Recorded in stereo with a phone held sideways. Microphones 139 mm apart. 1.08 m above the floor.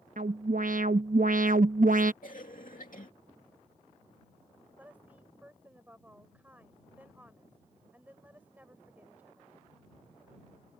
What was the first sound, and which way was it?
An alarm, 70° right (ahead or behind).